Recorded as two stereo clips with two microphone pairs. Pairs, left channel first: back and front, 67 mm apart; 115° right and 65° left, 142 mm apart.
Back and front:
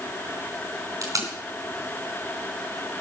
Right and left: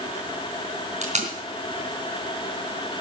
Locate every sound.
1.0 s tape being pulled: 30° left, 3.5 m